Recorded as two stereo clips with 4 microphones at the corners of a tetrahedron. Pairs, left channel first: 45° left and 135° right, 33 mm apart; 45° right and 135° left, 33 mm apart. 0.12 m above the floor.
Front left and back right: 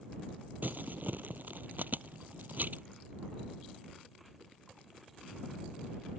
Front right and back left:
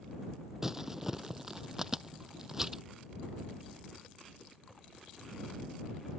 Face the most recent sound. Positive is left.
turn(degrees=-150)